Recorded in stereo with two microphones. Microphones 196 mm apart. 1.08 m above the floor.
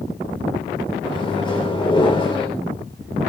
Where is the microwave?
25° left (ahead or behind), 3.5 m.